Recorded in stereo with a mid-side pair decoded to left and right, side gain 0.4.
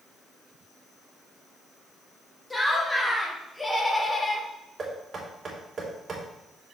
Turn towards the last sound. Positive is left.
turn(degrees=-45)